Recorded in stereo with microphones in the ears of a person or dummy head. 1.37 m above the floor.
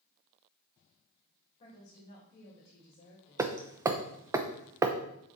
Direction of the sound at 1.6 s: 35° left (ahead or behind).